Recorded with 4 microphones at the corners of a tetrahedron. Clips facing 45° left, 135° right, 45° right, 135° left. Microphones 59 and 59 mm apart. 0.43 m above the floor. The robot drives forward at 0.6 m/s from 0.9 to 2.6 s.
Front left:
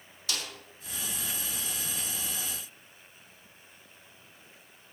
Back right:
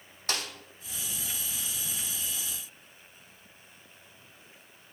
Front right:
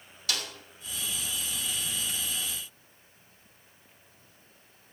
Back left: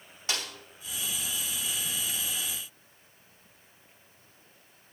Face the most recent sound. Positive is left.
turn(degrees=-175)